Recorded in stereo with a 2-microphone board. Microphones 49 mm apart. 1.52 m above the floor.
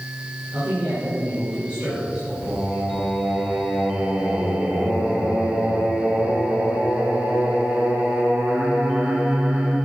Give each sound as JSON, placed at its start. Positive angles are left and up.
{"t": 0.5, "sound": "a man speaking", "side_deg": -25, "distance_m": 5.5}
{"t": 2.4, "sound": "singing", "side_deg": -45, "distance_m": 4.0}